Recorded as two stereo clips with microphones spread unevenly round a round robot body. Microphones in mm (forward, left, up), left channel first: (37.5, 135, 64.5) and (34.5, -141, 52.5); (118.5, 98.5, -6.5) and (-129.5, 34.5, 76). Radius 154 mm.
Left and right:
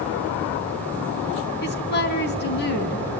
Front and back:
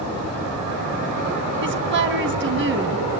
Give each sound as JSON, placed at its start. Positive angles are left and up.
{"t": 1.6, "sound": "a woman speaking", "azimuth_deg": 145, "distance_m": 3.0}